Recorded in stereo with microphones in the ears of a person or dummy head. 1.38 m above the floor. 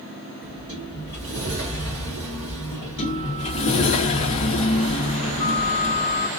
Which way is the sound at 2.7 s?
30° left (ahead or behind).